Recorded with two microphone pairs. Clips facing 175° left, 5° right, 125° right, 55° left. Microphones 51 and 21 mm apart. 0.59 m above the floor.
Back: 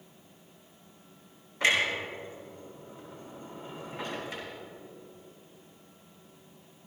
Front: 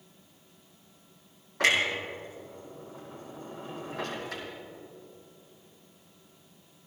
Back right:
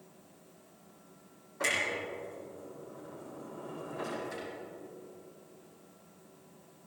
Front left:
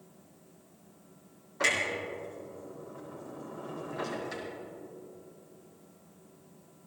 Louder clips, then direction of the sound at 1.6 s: Front 1 dB, front left 3 dB; straight ahead.